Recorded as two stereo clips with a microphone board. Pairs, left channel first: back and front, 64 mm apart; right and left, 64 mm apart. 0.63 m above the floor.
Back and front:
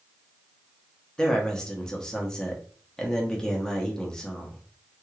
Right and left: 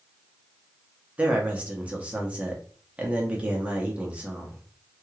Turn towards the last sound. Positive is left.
turn(degrees=120)